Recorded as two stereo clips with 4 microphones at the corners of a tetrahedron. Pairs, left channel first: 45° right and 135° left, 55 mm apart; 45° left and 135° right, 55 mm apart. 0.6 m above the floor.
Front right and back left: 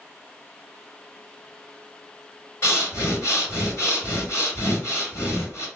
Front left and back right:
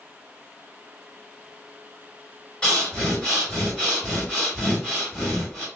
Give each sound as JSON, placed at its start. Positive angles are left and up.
{"t": 2.6, "sound": "breathing", "azimuth_deg": -25, "distance_m": 2.0}